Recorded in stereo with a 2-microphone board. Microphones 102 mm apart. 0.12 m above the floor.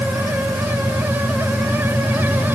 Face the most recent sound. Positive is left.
No sound to turn to.